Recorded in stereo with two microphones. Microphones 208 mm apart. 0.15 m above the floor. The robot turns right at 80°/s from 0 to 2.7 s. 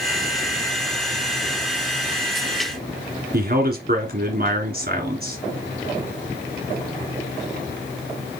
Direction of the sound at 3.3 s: 50° right (ahead or behind).